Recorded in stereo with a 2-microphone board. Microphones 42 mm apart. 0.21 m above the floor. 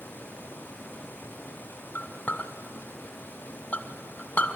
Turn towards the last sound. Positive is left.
turn(degrees=40)  # may be behind; listen again after turning